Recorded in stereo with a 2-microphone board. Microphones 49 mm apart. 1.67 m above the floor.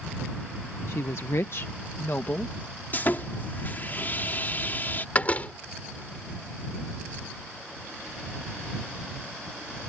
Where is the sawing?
40° left (ahead or behind).